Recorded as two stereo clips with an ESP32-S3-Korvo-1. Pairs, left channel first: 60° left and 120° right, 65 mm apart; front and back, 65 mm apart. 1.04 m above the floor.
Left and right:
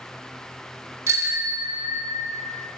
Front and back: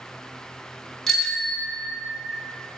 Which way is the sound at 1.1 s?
85° right.